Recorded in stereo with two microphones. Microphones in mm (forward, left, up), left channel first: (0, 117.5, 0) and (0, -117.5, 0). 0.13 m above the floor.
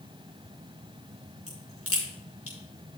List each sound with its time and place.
1.5 s a crack: 70° left (ahead or behind), 5 m